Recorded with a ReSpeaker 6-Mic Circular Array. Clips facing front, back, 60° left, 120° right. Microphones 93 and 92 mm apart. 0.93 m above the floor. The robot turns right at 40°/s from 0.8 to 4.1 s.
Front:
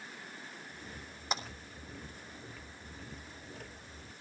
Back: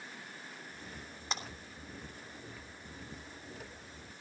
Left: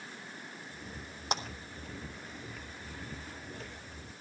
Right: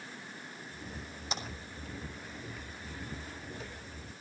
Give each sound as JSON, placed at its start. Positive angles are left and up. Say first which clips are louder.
{"t": 1.3, "sound": "a clap", "louder": "front 3 dB, left 5 dB", "azimuth_deg": 85, "distance_m": 3.0}